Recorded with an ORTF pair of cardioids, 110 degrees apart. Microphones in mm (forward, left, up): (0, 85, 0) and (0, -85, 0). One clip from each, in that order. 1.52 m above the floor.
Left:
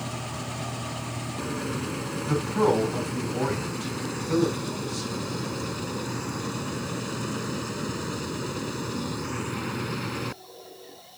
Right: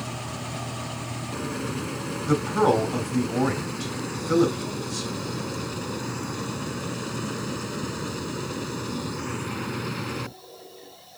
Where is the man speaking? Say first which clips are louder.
Right 2 dB; 40° right, 5 m.